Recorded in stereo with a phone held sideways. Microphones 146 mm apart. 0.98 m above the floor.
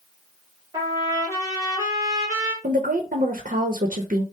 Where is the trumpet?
20° right (ahead or behind), 2.5 m.